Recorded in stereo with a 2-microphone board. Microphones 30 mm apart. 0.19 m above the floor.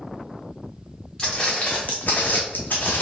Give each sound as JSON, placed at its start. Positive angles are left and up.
{"t": 1.2, "sound": "footsteps", "side_deg": 25, "distance_m": 1.1}